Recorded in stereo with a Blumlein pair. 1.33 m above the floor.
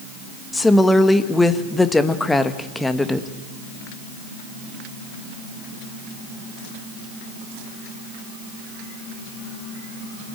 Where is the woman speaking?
10° left, 1.4 m.